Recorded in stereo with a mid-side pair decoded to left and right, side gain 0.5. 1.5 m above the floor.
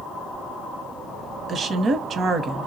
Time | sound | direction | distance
1.5 | a woman speaking | 45° right | 0.7 m